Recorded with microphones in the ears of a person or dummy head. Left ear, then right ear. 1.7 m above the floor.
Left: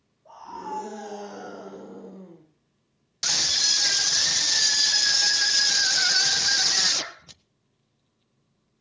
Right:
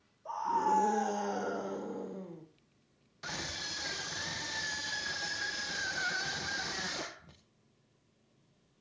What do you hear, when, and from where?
0.2 s a scream: 45° right (ahead or behind), 4 m; by 2.4 s centre (ahead or behind), 3.5 m
3.2 s a scream: 80° left, 1.5 m